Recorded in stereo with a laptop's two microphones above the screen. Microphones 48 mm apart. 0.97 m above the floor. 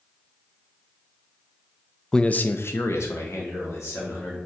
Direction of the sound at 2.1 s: 10° left (ahead or behind).